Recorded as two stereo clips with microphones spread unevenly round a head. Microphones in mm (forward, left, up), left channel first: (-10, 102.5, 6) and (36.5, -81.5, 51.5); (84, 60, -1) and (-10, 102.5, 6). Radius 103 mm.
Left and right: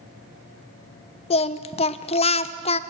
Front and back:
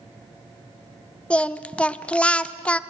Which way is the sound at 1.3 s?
50° left.